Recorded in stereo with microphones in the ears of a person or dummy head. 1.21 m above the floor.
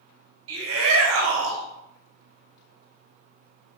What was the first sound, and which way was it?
A shout, 80° right.